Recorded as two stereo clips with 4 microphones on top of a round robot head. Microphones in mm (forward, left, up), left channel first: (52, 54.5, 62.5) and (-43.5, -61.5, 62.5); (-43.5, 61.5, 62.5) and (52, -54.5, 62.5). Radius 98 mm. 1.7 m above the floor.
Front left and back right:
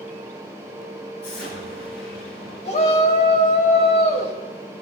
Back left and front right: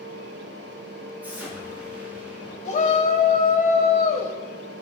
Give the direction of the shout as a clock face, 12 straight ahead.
9 o'clock.